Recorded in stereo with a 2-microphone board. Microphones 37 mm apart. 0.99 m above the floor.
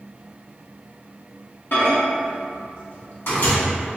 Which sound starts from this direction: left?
A microwave, at 1.7 s.